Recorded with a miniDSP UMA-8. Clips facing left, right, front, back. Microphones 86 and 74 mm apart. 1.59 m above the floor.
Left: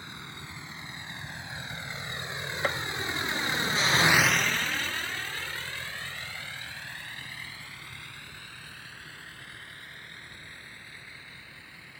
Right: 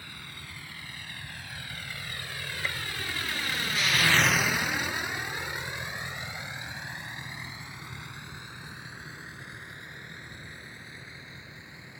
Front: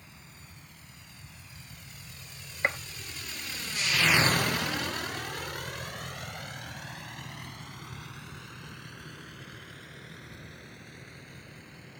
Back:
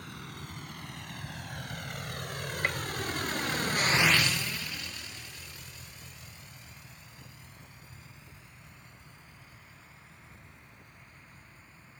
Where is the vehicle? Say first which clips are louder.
Left 2 dB, back 9 dB; 160° left; by 12.0 s 20° right.